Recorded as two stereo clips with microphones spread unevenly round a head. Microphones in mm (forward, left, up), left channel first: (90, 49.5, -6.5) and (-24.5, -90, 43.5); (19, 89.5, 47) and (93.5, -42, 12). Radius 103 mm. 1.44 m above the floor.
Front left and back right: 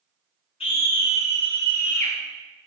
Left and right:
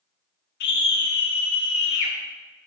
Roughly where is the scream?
Behind left.